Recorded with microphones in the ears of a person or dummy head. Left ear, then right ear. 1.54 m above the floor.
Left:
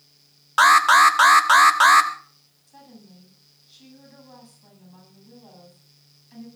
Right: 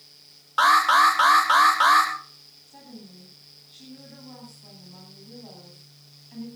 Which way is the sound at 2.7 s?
20° left (ahead or behind).